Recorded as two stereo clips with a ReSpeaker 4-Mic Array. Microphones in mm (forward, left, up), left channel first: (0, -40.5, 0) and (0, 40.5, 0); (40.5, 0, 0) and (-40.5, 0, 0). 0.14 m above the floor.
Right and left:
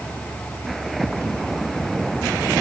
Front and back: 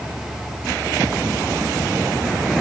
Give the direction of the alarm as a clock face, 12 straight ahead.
I don't hear an alarm.